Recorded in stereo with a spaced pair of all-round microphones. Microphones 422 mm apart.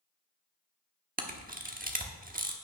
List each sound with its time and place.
1.2 s a camera shutter: 20° right (ahead or behind), 1.1 m